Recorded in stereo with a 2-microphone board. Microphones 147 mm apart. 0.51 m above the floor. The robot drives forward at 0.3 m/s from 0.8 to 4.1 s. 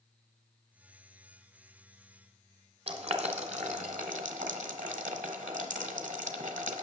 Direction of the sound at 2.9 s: 45° right (ahead or behind).